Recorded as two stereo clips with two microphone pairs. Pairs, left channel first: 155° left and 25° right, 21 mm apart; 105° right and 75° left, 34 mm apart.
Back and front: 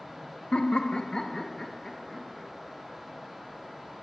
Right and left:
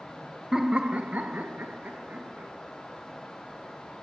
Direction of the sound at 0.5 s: 145° left.